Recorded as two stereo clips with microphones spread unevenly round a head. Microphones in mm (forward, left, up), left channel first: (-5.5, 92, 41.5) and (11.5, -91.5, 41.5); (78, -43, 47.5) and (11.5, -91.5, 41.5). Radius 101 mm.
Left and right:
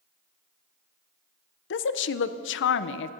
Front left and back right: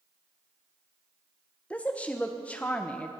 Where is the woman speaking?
115° left, 0.5 m.